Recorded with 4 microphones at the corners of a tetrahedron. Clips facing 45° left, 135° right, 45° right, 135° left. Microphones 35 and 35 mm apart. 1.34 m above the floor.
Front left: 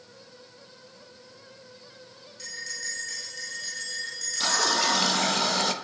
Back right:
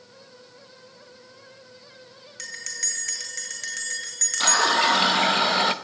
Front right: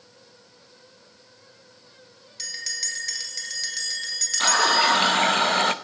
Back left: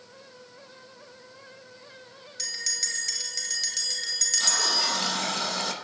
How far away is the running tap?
About 0.9 m.